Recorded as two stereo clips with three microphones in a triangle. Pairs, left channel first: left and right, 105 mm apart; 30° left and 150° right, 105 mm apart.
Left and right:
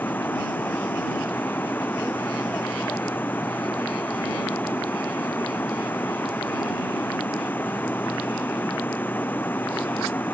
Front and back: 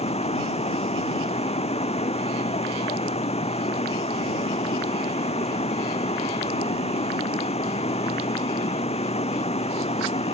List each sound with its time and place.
0.0 s running water: 15° left